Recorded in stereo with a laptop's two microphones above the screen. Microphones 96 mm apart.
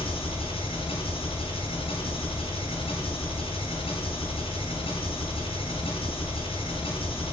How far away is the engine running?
About 5.5 m.